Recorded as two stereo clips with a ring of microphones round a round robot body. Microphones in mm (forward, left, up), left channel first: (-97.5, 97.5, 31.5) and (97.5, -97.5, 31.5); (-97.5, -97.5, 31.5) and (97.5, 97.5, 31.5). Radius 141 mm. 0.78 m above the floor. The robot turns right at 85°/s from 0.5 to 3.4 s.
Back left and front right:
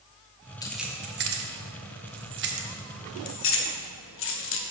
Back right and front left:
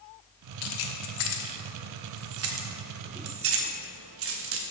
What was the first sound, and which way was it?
Keys jangling, 150° right.